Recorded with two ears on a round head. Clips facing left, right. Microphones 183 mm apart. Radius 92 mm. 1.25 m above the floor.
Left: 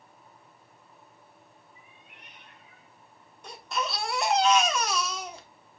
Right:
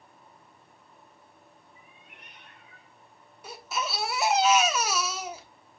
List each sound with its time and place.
1.8 s a cat meowing: 40° right (ahead or behind), 5 m; by 3.3 s 60° right (ahead or behind), 5.5 m
3.4 s a baby crying: 5° right (ahead or behind), 1.2 m